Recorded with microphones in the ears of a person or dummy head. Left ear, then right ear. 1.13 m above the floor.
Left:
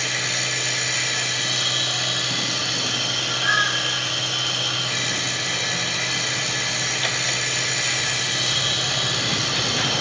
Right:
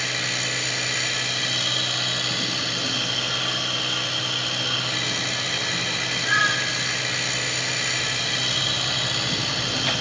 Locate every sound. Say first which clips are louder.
0.0 s a machine running: left 1 dB; centre (ahead or behind), 1.0 m